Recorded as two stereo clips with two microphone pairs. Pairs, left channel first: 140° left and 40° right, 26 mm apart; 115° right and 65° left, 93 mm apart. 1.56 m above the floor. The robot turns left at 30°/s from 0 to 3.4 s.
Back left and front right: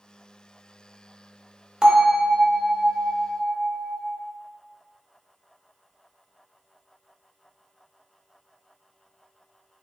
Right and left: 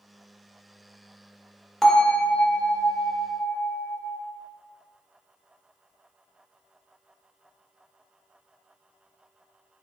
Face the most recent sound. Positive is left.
turn(degrees=-90)